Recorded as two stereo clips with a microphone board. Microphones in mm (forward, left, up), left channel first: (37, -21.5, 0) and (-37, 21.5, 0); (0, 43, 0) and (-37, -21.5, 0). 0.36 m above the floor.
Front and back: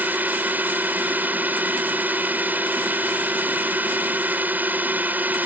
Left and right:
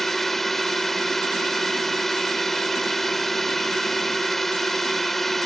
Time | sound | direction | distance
0.0 | a drone | 140° left | ?